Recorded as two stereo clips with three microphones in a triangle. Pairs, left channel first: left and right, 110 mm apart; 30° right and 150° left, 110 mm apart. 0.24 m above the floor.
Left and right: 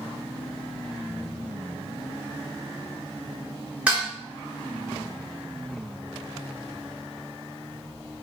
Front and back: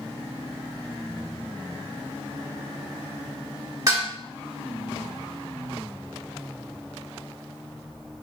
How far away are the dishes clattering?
About 1.3 m.